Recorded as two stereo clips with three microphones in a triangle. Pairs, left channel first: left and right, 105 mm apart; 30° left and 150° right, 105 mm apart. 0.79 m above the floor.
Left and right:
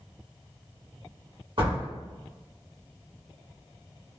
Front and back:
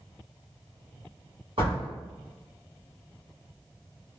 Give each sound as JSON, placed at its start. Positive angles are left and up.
{"t": 1.6, "sound": "a door slam", "azimuth_deg": -120, "distance_m": 1.6}